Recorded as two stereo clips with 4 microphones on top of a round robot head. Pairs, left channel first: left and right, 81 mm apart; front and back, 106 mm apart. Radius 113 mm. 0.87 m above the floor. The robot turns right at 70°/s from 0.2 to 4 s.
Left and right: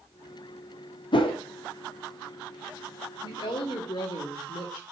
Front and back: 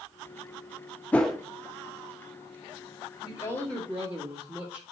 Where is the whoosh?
75° left, 0.7 m; by 1.4 s 95° left, 0.7 m.